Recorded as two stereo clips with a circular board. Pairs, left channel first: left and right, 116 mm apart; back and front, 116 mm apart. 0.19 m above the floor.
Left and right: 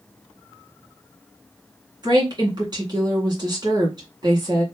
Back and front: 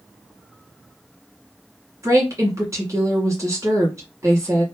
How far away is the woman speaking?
About 2 m.